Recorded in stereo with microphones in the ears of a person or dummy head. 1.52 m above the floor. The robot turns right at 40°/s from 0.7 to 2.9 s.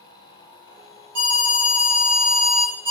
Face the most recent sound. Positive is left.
turn(degrees=-25)